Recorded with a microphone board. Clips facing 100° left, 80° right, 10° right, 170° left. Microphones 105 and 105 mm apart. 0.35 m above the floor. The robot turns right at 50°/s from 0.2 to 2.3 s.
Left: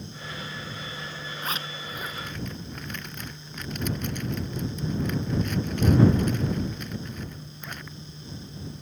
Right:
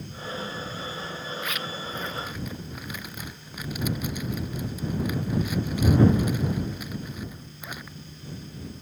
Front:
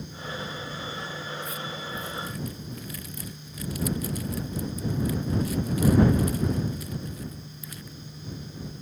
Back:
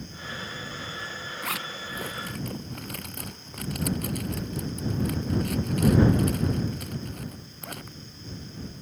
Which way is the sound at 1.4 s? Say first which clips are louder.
Right 1 dB, even; 155° left.